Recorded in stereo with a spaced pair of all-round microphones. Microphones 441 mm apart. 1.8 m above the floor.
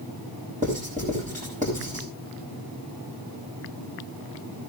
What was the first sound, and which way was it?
Writing, 15° right (ahead or behind).